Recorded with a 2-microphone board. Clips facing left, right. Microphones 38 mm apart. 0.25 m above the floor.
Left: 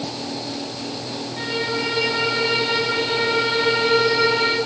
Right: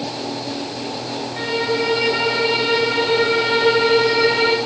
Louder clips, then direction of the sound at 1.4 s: Right 4 dB; 50° right (ahead or behind).